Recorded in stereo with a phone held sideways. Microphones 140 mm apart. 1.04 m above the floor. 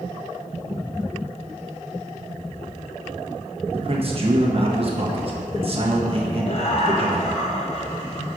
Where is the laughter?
50° left (ahead or behind), 0.7 m.